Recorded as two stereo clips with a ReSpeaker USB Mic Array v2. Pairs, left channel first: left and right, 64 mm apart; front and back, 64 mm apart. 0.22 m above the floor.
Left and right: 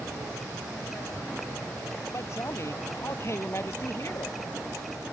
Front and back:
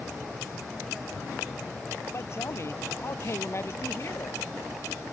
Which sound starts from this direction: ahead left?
A man speaking, at 2.1 s.